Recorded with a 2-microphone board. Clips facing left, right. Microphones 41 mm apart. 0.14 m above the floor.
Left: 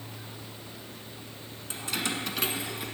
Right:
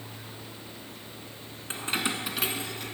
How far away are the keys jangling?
About 1.1 m.